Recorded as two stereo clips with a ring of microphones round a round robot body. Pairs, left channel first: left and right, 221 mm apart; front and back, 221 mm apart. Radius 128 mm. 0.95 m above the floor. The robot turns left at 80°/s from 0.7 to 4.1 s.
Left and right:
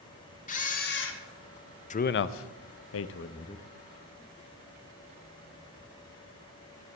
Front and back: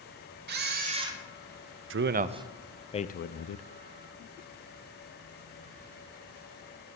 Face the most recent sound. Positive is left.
turn(degrees=-25)